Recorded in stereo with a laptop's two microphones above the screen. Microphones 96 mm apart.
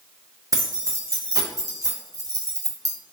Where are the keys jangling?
35° right (ahead or behind), 0.5 m.